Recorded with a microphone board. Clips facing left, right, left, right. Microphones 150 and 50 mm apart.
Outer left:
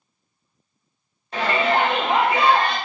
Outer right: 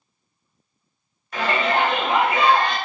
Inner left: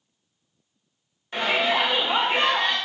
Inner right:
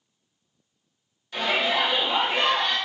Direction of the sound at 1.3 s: 30° left (ahead or behind).